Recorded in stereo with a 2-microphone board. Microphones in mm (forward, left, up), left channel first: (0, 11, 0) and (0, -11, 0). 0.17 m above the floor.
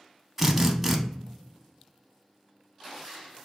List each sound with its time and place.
0.4 s a drill: 5° right (ahead or behind), 0.5 m